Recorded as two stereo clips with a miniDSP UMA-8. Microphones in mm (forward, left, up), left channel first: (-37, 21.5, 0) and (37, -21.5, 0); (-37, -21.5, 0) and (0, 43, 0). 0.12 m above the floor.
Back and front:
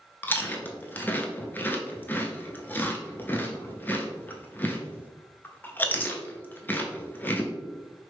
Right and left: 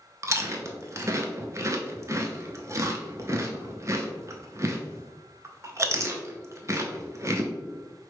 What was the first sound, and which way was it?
Chewing, 90° left.